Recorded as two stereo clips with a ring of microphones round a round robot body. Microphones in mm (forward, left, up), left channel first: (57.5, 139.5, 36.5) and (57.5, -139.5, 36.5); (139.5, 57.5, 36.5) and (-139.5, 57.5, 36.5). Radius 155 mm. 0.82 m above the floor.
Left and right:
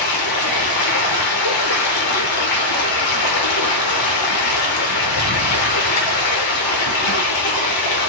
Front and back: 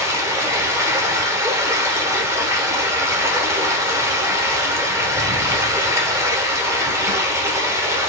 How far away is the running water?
About 1.0 m.